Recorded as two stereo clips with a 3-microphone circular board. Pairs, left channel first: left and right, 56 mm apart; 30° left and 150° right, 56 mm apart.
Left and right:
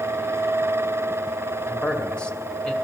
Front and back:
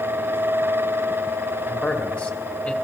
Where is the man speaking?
40° left, 1.4 m.